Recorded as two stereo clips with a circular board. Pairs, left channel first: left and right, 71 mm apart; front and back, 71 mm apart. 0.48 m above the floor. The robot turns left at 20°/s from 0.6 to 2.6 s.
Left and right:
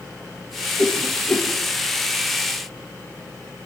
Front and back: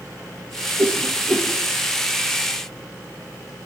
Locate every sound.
0.8 s a whoosh: 135° left, 8.5 m; by 1.5 s 120° left, 8.5 m